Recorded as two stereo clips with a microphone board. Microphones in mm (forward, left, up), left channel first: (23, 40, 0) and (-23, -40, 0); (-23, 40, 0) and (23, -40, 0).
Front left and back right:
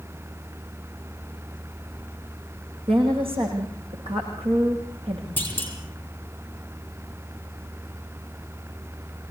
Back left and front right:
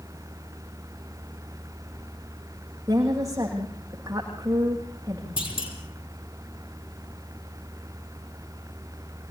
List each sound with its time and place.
2.9 s a woman speaking: 115° right, 8 m
5.4 s a clunk: 125° left, 5 m